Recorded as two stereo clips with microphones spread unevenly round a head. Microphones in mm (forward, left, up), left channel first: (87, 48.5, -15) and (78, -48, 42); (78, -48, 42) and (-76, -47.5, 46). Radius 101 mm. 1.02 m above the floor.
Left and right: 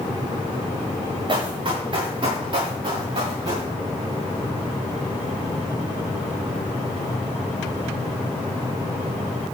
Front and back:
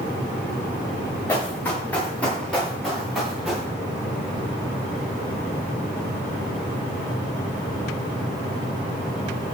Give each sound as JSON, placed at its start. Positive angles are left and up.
{"t": 1.3, "sound": "running footsteps", "azimuth_deg": -75, "distance_m": 6.5}